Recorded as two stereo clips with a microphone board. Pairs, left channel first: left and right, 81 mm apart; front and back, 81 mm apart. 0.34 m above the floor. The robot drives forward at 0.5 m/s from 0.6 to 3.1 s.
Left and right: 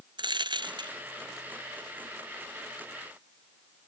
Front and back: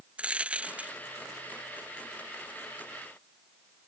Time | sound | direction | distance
0.2 | a dropped coin | 105° right | ?